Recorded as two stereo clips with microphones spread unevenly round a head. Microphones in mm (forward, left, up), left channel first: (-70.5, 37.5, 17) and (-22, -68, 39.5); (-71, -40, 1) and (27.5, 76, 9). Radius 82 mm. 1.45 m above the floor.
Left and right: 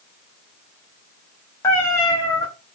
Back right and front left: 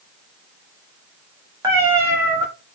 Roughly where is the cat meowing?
Ahead left.